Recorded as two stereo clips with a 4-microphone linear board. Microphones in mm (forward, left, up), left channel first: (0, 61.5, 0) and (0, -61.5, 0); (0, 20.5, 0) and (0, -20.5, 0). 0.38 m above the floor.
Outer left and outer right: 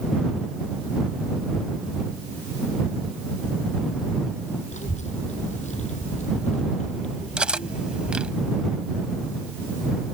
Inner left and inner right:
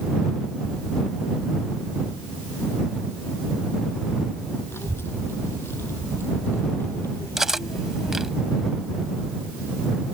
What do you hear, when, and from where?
4.7 s a child speaking: 75° left (ahead or behind); by 8.4 s 70° left (ahead or behind)
7.4 s cutlery clinking: 10° right (ahead or behind)